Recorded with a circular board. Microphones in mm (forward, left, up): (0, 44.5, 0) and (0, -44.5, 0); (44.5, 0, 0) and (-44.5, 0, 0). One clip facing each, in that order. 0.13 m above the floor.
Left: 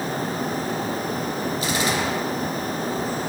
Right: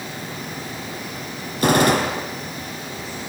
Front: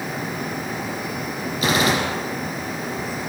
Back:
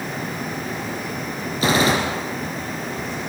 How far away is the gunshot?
About 5 m.